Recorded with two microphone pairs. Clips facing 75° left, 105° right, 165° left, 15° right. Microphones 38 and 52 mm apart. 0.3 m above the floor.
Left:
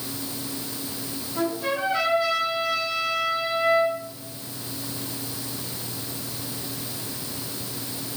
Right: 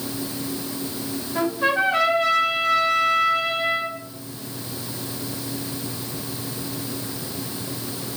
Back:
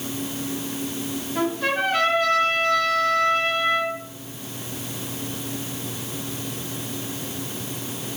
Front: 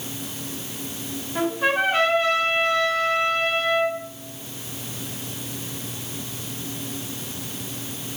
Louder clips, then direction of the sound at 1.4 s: Right 5 dB, front 2 dB; 75° right.